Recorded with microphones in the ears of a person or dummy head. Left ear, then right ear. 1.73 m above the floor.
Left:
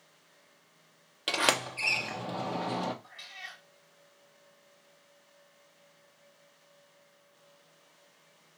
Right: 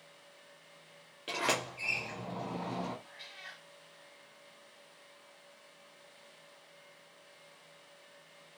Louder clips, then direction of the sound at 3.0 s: Left 4 dB; 35° left (ahead or behind).